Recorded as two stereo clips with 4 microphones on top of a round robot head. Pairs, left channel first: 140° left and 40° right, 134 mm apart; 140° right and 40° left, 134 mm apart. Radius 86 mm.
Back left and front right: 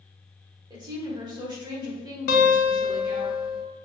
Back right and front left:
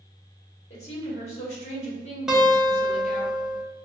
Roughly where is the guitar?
Behind left.